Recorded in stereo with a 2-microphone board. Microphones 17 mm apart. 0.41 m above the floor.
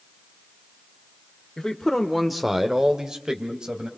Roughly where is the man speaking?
Left.